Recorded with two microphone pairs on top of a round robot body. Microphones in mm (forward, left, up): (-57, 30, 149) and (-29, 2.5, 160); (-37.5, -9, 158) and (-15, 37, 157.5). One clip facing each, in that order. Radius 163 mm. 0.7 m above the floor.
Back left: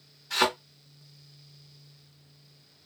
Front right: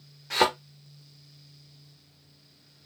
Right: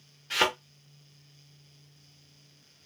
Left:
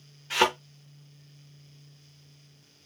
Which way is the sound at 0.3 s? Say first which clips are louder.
Front right 2 dB, left 3 dB; 25° right.